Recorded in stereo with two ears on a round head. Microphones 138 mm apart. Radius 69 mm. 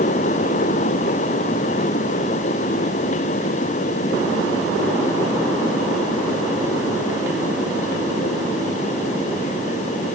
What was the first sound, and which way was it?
Only background noise.